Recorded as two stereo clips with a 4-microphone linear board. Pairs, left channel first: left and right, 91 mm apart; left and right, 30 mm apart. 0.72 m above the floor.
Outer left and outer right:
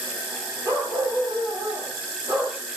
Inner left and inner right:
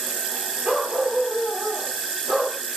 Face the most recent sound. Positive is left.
turn(degrees=-20)  # may be behind; listen again after turning